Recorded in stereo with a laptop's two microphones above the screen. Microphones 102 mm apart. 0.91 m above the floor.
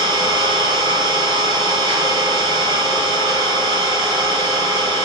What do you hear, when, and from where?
0.0 s an engine running: 75° right (ahead or behind), 2.0 m